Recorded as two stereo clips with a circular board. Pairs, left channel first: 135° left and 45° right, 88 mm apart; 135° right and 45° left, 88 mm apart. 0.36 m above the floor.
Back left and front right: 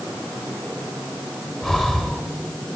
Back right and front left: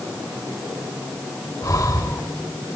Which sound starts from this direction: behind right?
Breathing, at 1.6 s.